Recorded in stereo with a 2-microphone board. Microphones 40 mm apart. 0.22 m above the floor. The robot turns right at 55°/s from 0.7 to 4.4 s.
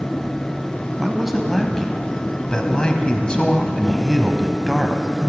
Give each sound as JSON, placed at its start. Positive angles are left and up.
{"t": 1.0, "sound": "a man speaking", "side_deg": -10, "distance_m": 1.0}